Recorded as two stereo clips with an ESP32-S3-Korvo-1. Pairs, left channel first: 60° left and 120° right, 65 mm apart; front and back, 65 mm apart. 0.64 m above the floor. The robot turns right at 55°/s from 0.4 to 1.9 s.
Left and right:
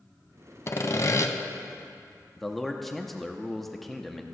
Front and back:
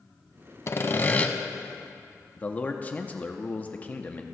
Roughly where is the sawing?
Ahead left.